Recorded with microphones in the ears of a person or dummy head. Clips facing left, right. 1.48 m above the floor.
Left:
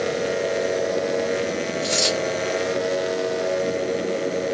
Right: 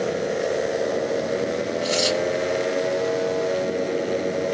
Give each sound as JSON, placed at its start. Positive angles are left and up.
{"t": 1.8, "sound": "a dropped coin", "side_deg": 25, "distance_m": 2.0}